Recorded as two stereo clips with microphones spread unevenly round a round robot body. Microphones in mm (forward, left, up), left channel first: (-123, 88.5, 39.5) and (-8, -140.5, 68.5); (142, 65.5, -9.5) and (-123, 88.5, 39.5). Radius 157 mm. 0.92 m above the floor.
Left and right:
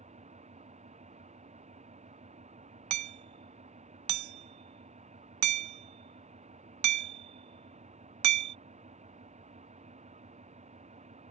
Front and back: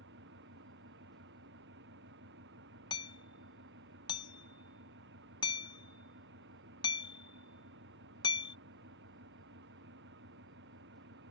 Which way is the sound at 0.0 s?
125° right.